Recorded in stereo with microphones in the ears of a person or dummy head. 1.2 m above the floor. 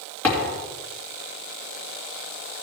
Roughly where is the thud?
Centre.